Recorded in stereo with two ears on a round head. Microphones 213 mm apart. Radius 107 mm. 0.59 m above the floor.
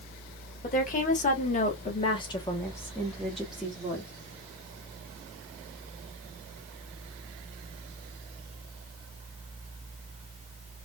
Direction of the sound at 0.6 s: 35° left (ahead or behind).